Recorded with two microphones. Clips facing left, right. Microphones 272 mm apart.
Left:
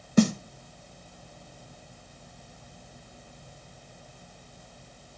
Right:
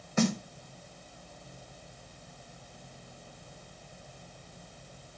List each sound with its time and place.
0.2 s a snare drum: 40° left (ahead or behind), 0.9 m